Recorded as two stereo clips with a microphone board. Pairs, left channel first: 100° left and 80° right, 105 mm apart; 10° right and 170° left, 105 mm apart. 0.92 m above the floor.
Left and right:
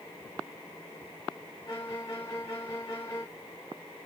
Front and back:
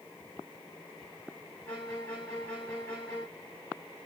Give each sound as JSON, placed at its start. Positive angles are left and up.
{"t": 1.7, "sound": "a violin", "azimuth_deg": 65, "distance_m": 1.7}